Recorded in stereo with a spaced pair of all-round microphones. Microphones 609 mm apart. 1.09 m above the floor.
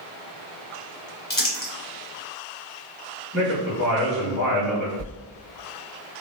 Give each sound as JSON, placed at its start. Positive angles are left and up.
{"t": 1.3, "sound": "crumpling", "side_deg": 30, "distance_m": 1.1}
{"t": 3.3, "sound": "a man speaking", "side_deg": 0, "distance_m": 2.0}
{"t": 5.0, "sound": "a sliding door", "side_deg": -80, "distance_m": 1.0}